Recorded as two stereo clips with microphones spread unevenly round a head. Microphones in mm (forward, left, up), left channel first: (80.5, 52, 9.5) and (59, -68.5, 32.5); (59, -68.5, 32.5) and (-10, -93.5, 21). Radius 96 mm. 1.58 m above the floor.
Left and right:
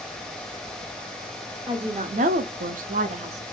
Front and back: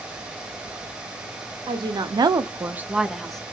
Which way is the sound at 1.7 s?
170° right.